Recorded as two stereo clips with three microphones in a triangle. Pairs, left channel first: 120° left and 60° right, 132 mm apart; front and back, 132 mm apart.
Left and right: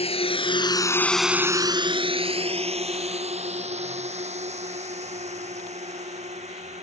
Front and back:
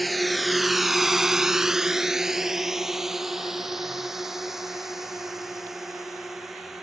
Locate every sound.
0.0 s a drone: 90° left; by 6.8 s 90° right